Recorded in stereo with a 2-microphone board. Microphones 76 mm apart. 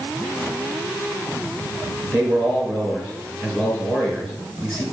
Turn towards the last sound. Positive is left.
turn(degrees=10)  # may be behind; listen again after turning